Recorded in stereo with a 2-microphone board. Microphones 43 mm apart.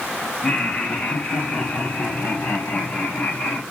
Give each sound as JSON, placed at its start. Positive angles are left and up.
{"t": 0.4, "sound": "laughter", "side_deg": 25, "distance_m": 1.2}